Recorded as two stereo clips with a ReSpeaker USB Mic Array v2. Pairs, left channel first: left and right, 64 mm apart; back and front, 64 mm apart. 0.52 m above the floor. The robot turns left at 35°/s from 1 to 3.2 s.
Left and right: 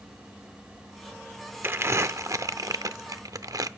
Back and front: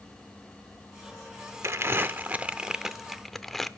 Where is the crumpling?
40° right, 0.6 m; by 3.7 s 95° right, 0.6 m.